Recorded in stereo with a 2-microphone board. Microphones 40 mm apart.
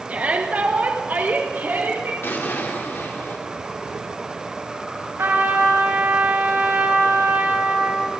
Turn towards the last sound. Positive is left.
turn(degrees=-85)